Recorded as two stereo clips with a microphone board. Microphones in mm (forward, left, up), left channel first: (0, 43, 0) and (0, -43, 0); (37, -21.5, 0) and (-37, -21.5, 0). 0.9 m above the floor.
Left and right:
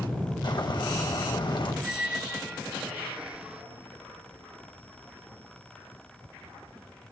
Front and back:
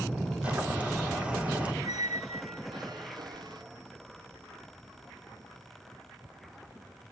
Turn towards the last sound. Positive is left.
turn(degrees=-170)